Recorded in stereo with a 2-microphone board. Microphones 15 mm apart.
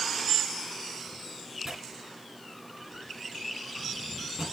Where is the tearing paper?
30° right (ahead or behind), 2 m.